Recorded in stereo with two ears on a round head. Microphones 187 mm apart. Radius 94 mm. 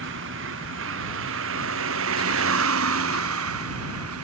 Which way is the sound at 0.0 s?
65° right (ahead or behind).